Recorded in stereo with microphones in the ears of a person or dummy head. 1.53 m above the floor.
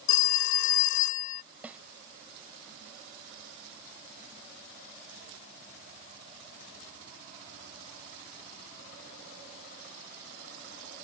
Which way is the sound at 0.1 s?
60° left (ahead or behind).